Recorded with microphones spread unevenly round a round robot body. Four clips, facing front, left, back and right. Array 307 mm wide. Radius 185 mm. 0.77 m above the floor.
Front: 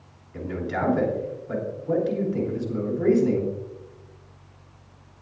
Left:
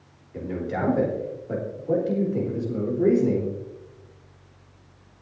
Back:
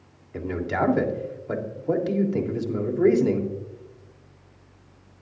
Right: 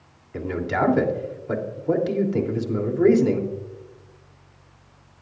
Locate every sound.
0.3 s a man speaking: 110° right, 3 m